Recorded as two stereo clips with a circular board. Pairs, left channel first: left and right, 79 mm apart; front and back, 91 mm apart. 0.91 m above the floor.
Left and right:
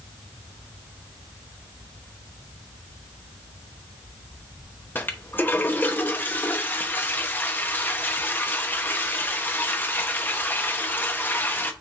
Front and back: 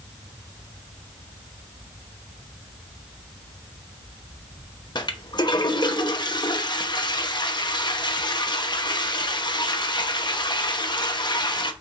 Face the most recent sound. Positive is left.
turn(degrees=30)